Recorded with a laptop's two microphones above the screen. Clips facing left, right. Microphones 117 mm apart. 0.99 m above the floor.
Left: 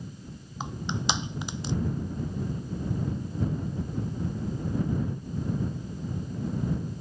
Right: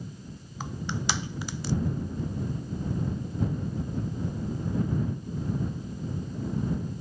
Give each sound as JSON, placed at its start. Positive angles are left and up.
{"t": 0.6, "sound": "crushing", "side_deg": 20}